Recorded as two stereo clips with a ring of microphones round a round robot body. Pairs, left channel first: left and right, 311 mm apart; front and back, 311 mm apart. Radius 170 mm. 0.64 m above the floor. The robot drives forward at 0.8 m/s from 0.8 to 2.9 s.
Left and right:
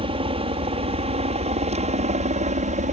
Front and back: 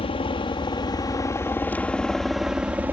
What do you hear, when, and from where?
0.0 s a helicopter: 45° right; by 2.9 s 105° right